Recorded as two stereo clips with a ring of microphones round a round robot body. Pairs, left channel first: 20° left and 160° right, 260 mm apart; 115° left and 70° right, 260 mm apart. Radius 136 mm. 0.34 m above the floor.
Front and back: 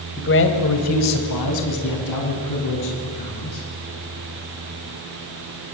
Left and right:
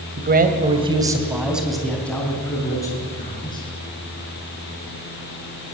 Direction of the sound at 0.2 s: 20° right.